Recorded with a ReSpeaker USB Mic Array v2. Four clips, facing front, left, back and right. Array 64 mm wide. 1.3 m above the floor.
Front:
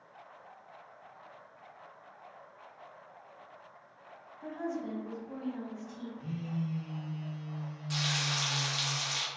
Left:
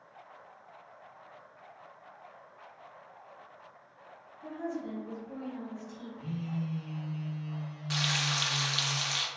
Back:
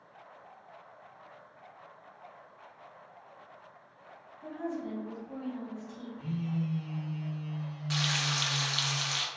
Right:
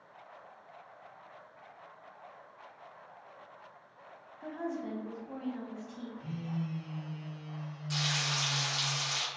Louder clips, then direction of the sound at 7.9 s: Left 2 dB, back 2 dB; 135° left.